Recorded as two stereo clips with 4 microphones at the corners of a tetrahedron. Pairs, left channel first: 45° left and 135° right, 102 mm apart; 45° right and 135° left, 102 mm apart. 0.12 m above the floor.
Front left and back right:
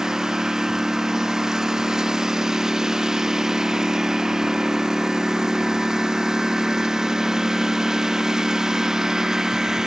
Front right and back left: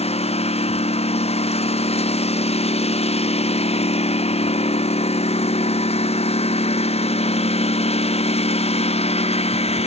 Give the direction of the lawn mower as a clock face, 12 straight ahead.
2 o'clock.